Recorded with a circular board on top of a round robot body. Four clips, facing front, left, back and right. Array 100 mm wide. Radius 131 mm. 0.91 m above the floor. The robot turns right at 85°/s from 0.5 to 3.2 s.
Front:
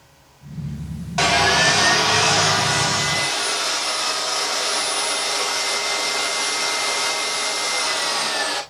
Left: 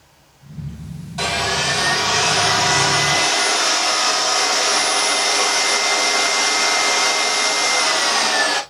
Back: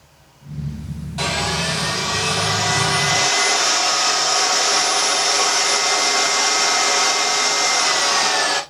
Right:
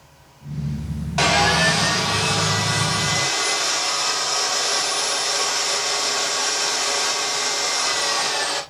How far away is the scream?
No scream in this recording.